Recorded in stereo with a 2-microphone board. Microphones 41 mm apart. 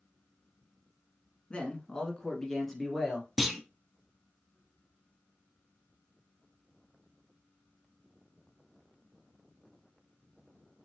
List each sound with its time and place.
1.5 s a man speaking: 30° left (ahead or behind), 1.2 m; by 3.3 s centre (ahead or behind), 2 m
3.4 s a clunk: 5° right (ahead or behind), 0.7 m